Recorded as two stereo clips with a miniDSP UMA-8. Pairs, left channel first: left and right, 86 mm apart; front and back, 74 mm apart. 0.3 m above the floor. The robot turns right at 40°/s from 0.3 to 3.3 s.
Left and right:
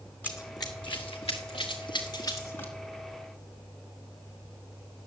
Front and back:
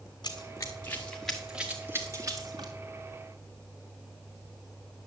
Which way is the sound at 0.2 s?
20° left.